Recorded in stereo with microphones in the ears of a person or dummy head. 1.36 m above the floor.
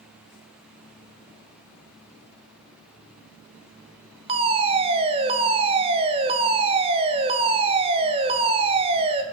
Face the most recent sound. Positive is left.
turn(degrees=-30)  # may be behind; listen again after turning